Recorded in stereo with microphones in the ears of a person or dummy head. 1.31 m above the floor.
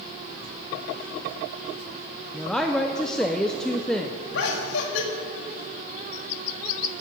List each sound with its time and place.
2.3 s a woman speaking: centre (ahead or behind), 0.6 m
4.3 s laughter: 75° left (ahead or behind), 2.0 m